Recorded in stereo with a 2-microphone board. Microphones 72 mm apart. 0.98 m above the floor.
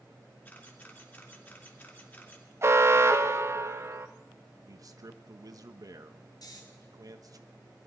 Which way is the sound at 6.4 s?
65° left (ahead or behind).